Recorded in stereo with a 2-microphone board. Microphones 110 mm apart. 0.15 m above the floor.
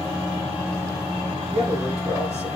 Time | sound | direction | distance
1.5 | a man speaking | 75° right (ahead or behind) | 5 m